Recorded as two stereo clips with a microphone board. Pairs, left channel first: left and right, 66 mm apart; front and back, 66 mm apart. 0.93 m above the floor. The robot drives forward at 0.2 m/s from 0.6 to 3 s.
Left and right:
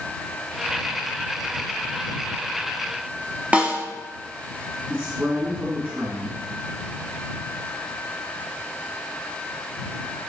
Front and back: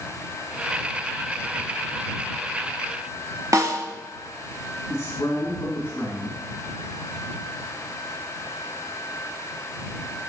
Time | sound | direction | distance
3.5 | a snare drum | 155° right | 1.5 m
4.9 | a man speaking | 40° right | 2.5 m